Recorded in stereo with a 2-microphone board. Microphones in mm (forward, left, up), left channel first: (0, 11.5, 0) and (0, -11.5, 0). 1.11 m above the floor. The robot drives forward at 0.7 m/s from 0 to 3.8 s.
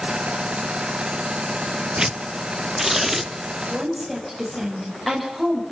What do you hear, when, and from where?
2.0 s tearing paper: 40° right (ahead or behind), 0.5 m; by 3.3 s 15° right (ahead or behind), 1.3 m
3.5 s a woman speaking: 5° left (ahead or behind), 6.5 m; by 5.6 s 10° left (ahead or behind), 6.5 m